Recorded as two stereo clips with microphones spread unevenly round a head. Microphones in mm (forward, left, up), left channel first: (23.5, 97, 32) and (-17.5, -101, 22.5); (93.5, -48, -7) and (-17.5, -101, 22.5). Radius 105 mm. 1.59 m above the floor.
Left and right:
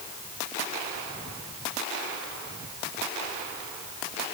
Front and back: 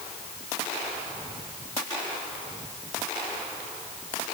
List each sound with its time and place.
Only background noise.